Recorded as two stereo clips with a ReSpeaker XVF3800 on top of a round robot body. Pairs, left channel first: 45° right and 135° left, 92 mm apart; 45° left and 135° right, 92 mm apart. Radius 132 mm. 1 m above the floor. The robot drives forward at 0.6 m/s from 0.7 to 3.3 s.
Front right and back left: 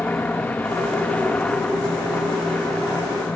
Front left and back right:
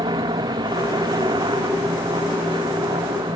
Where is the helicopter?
115° right; by 3.4 s 120° right.